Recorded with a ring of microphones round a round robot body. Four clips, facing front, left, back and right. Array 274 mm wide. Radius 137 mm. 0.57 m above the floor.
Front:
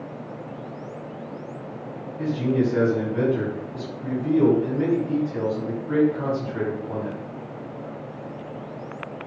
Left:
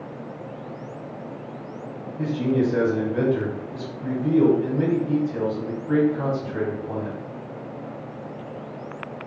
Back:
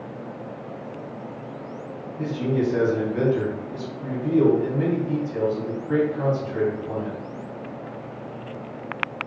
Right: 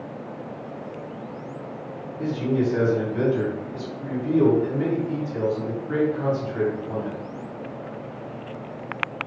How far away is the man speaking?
About 1.9 m.